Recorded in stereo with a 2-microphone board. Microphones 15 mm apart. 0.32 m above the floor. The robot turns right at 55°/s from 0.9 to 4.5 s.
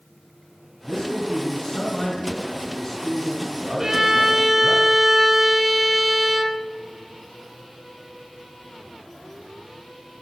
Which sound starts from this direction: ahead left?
A man speaking, at 0.8 s.